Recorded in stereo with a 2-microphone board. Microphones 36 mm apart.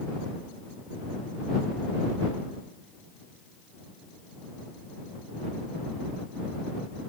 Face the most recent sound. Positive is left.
No sound to turn to.